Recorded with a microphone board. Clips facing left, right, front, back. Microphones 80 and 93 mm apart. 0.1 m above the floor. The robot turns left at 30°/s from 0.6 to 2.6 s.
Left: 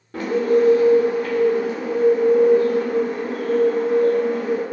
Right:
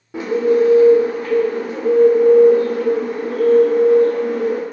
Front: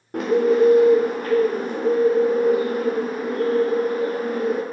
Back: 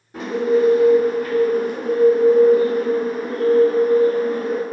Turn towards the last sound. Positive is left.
turn(degrees=-75)